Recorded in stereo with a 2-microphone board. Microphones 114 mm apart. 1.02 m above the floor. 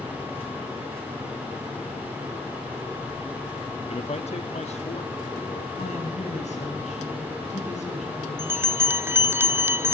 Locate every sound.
3.9 s a man speaking: 60° left (ahead or behind), 1.3 m; by 5.7 s 75° left (ahead or behind), 3 m
5.8 s a woman speaking: 80° left, 9.5 m
8.4 s a bell: 20° right (ahead or behind), 0.6 m